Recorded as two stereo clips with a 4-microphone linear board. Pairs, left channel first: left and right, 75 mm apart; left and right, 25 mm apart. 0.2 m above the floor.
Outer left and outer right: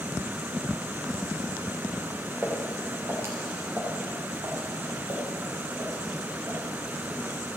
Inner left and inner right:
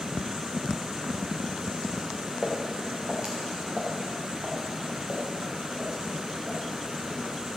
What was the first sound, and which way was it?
Footsteps, 25° right (ahead or behind).